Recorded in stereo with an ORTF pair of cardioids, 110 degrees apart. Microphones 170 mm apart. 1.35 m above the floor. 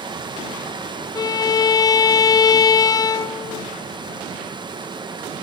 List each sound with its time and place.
0.0 s running water: 25° right, 0.9 m
1.1 s a violin: 20° left, 0.6 m